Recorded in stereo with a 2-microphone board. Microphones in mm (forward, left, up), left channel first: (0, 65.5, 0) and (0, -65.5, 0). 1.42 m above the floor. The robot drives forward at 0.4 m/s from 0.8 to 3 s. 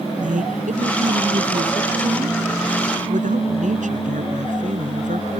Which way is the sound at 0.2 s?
75° right (ahead or behind).